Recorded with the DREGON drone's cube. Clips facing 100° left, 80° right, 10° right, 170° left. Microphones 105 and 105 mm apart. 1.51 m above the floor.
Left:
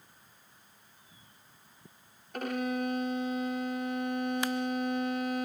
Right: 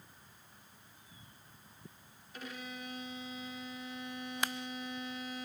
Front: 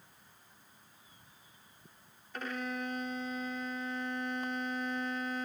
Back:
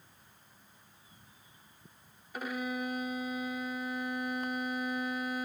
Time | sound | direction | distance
2.3 | a violin | 95° left | 0.5 m